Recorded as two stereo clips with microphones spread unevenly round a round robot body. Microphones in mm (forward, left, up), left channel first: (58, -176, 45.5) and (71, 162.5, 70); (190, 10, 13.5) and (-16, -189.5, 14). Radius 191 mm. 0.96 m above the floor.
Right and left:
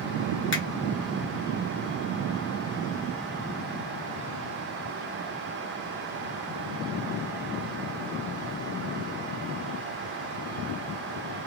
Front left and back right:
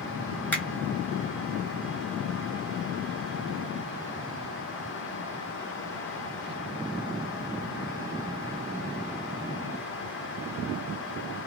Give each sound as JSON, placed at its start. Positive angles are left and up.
{"t": 0.5, "sound": "a finger snap", "azimuth_deg": -40, "distance_m": 1.2}